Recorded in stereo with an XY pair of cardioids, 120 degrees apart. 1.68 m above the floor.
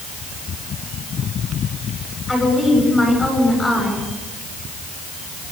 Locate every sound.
2.3 s a woman speaking: 10° left, 9 m